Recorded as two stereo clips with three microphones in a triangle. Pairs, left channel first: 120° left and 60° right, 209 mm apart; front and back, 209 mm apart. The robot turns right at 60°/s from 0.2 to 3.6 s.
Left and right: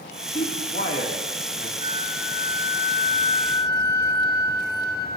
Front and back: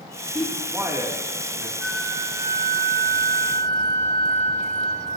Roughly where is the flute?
Left.